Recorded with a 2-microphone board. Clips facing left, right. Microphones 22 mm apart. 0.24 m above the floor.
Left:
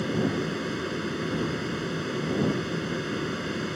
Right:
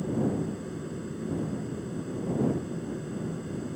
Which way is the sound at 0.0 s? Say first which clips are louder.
Left 2 dB; 60° left (ahead or behind).